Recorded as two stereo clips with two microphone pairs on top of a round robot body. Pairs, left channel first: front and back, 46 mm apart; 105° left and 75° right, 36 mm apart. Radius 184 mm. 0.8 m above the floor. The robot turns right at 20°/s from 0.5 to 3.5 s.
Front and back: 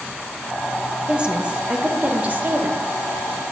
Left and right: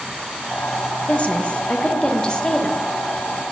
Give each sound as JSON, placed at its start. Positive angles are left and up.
{"t": 1.1, "sound": "a woman speaking", "azimuth_deg": 125, "distance_m": 0.8}